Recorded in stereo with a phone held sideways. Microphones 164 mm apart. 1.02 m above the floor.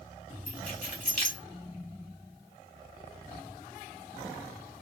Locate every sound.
0.5 s keys jangling: 55° left (ahead or behind), 1.4 m